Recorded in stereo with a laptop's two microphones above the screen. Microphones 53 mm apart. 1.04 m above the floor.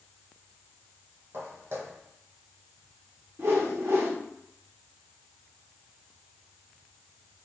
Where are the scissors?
I don't hear scissors.